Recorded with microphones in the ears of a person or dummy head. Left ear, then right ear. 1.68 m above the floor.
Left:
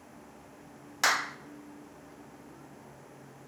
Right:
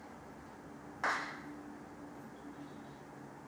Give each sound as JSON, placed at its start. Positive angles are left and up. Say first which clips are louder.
{"t": 1.0, "sound": "a clap", "louder": "left 8 dB", "side_deg": 75, "distance_m": 1.0}